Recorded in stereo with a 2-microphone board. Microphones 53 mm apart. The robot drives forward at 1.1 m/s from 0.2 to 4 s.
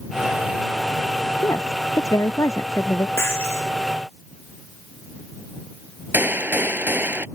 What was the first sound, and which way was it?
A woman speaking, 85° left.